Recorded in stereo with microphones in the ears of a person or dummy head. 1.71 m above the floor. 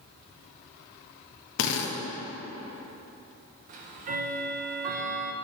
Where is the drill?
65° left (ahead or behind), 0.8 m.